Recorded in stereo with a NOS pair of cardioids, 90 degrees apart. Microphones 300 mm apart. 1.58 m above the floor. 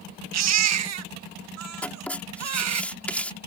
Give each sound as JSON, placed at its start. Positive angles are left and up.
{"t": 0.3, "sound": "a baby crying", "azimuth_deg": -60}
{"t": 1.8, "sound": "writing", "azimuth_deg": 5}